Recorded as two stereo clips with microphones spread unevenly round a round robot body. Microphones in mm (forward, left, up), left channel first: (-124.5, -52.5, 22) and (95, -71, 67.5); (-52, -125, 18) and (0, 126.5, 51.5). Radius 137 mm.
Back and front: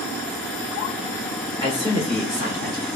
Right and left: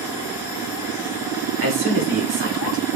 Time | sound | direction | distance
1.6 | a man speaking | 75° left | 1.7 m